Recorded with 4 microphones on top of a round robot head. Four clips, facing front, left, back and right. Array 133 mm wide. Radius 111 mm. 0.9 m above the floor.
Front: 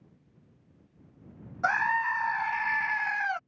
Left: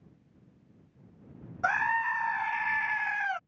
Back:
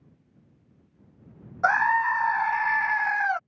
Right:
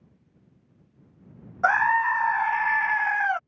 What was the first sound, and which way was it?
A scream, 130° right.